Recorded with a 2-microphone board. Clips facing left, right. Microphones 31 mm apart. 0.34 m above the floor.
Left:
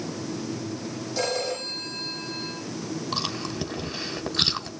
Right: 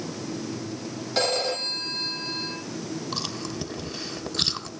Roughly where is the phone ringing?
Right.